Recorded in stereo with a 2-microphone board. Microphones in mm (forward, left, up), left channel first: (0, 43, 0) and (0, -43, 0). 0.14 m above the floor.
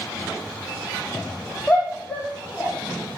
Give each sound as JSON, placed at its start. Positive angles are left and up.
{"t": 1.7, "sound": "a shout", "side_deg": 10, "distance_m": 6.0}